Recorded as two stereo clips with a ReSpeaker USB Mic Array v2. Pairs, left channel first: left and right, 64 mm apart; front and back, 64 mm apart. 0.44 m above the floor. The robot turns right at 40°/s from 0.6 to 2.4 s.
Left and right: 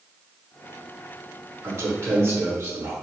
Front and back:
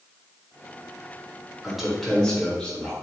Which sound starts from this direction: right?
A man speaking, at 1.6 s.